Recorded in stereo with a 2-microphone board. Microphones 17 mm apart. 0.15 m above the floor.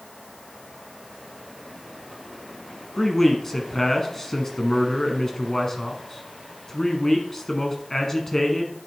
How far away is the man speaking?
About 1.1 m.